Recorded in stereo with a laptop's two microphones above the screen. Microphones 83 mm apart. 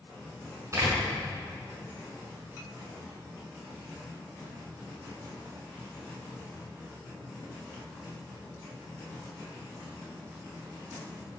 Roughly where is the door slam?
Right.